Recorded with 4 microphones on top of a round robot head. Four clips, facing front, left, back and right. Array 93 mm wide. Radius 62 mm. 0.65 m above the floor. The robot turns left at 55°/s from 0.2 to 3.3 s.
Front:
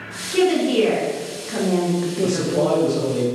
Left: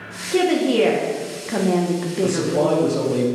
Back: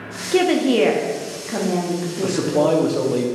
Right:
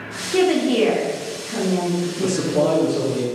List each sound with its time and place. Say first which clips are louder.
0.3 s a woman speaking: even, back 1 dB; 175° right, 0.7 m; by 2.8 s 45° left, 0.7 m
2.2 s a man speaking: even, back 3 dB; 160° right, 0.8 m; by 3.3 s 145° left, 0.8 m